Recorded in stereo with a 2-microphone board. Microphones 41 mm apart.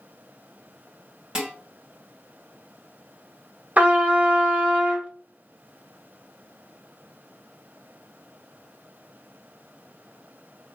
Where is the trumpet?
40° right (ahead or behind), 0.7 m.